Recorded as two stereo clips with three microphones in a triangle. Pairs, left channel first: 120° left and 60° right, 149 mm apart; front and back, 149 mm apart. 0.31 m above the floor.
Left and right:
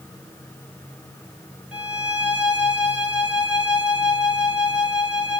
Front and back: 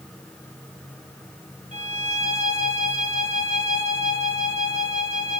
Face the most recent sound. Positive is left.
turn(degrees=-140)